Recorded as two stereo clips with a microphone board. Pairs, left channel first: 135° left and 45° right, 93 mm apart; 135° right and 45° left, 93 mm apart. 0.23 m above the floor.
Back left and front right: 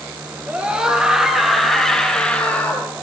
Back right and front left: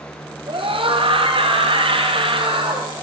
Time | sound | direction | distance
0.5 | a scream | 25° left | 4.5 m